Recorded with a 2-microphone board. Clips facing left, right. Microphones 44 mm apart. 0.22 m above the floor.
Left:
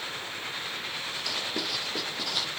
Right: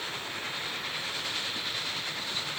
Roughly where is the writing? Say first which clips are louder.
Left 2 dB; left.